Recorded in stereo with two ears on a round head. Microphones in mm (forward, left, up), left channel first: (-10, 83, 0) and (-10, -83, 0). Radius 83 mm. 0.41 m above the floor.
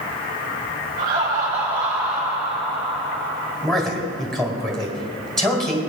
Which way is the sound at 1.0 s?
30° right (ahead or behind).